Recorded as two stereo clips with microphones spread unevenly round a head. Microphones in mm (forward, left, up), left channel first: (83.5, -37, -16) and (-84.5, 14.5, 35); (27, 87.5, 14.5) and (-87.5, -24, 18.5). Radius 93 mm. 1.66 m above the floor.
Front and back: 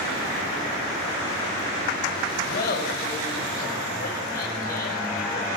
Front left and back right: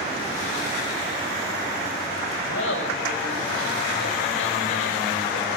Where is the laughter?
35° left, 6.5 m.